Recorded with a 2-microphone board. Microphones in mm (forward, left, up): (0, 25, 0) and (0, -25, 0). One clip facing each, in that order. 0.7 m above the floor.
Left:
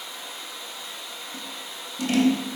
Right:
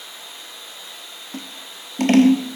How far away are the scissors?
About 0.6 m.